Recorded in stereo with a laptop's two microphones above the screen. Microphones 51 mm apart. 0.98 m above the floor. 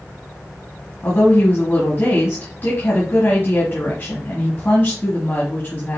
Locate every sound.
1.0 s a woman speaking: 40° left (ahead or behind), 1.5 m